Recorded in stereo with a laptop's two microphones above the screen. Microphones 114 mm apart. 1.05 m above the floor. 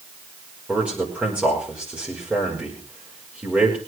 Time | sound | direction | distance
0.7 | a man speaking | 10° right (ahead or behind) | 5 m